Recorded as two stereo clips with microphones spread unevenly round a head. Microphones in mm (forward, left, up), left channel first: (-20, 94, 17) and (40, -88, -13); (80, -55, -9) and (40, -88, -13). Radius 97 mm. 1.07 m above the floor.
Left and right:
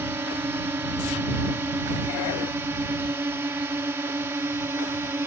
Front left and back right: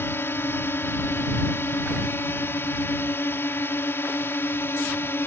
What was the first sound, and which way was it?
A drone, 5° left.